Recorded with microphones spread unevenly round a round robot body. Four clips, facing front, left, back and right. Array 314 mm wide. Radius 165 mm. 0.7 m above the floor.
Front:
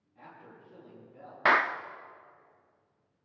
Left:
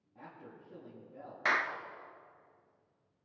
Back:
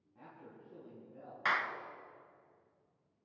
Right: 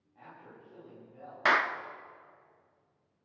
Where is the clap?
25° right, 0.9 m.